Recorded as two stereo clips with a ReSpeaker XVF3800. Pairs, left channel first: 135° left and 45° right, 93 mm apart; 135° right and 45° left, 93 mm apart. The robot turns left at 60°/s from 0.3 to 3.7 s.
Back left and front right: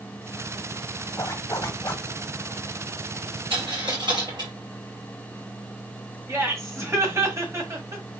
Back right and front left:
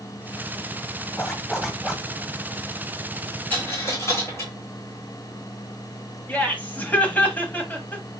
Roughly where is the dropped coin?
Ahead right.